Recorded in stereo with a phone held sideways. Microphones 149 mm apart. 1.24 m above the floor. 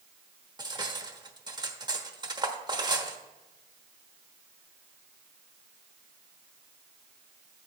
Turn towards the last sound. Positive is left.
turn(degrees=-25)  # may be behind; listen again after turning